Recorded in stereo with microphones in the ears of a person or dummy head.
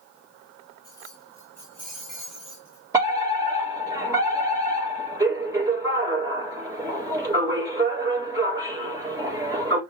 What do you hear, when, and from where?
0.8 s keys jangling: 20° left (ahead or behind), 2 m; by 2.9 s 5° right (ahead or behind), 1.6 m
2.9 s a fire alarm: 15° right (ahead or behind), 3.5 m